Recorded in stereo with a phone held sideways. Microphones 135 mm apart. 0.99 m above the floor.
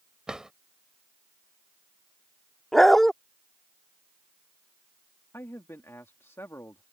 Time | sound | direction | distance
0.3 | a drawer | 5° right (ahead or behind) | ?
2.7 | a dog barking | centre (ahead or behind) | ?
5.3 | a man speaking | 20° left (ahead or behind) | ?